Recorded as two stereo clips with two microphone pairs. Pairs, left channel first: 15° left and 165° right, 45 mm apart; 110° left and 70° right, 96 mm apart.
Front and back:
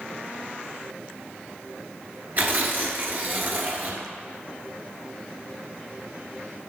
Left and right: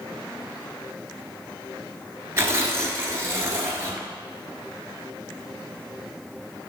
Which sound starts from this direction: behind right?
Tearing paper, at 2.4 s.